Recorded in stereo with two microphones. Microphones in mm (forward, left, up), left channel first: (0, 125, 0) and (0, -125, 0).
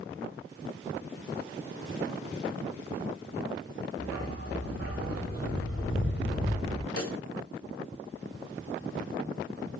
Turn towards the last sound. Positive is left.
turn(degrees=70)  # may be behind; listen again after turning